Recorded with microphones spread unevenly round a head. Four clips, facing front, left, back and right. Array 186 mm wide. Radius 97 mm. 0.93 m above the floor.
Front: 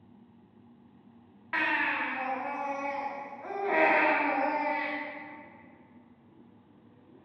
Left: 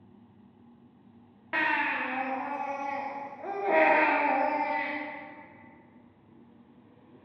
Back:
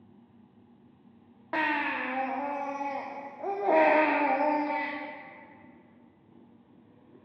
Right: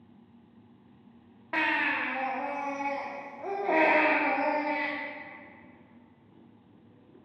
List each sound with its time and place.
1.5 s a baby crying: straight behind, 0.8 m